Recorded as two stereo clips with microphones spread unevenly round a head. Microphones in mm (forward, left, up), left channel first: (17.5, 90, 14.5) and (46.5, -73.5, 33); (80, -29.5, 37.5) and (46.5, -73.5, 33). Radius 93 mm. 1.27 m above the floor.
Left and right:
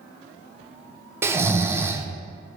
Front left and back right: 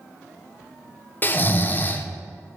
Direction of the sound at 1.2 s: Straight ahead.